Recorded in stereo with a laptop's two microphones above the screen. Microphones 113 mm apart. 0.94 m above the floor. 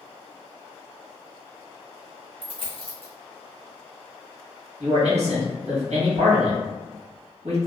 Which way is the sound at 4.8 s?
80° right.